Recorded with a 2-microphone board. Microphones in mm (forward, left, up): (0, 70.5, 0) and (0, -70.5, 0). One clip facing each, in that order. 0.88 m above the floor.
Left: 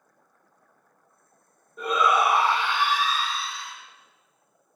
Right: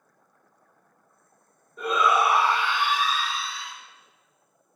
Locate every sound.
1.8 s a shout: centre (ahead or behind), 0.9 m; by 3.7 s 45° left (ahead or behind), 1.2 m